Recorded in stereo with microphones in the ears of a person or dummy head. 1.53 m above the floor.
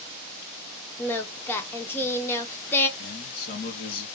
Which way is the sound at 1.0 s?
15° left (ahead or behind).